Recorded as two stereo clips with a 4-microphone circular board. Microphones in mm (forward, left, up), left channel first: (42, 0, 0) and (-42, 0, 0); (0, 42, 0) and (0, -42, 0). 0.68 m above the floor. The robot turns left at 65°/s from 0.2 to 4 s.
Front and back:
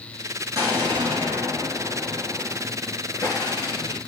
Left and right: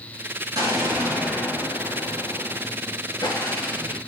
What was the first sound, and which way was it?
An explosion, 130° right.